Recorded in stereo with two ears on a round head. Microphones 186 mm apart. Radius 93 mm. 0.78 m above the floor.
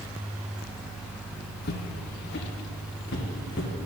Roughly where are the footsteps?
Left.